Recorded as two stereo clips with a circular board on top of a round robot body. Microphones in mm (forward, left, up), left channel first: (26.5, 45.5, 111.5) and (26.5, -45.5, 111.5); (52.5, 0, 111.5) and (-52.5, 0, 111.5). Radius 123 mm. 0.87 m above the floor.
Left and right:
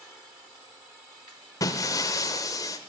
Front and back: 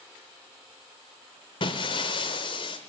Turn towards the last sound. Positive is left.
turn(degrees=40)